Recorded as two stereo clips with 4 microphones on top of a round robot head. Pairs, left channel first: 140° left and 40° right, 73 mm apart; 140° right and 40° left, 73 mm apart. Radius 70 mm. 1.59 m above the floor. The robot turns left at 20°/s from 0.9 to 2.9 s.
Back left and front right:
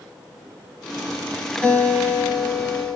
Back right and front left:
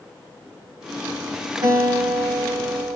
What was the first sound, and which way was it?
A guitar, 65° left.